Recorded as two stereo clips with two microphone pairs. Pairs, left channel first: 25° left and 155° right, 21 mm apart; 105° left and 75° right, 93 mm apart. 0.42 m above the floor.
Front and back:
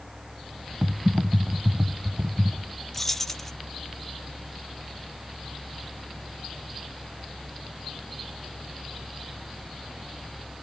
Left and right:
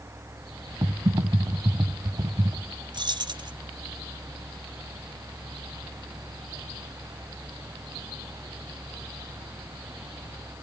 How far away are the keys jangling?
About 1.1 m.